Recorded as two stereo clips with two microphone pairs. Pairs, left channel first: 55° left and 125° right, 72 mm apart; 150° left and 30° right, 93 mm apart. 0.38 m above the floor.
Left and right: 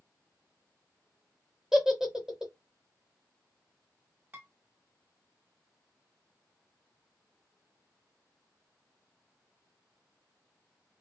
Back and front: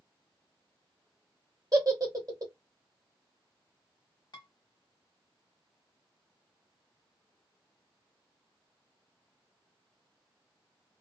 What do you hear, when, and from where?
1.7 s a giggle: 40° right, 0.8 m
4.3 s dishes clattering: straight behind, 1.1 m